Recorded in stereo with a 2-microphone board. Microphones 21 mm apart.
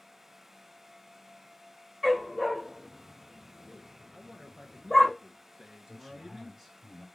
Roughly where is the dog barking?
Centre.